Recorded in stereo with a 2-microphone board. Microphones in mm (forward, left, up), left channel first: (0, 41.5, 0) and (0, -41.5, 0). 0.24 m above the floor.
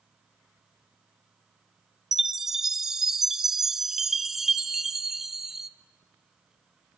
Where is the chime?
5° right (ahead or behind), 0.7 m.